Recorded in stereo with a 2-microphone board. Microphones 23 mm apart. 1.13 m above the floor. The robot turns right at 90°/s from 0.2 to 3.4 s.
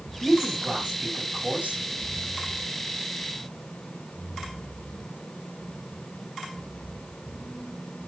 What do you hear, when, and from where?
0.2 s a man speaking: 175° left, 9 m; by 1.8 s 40° right, 9 m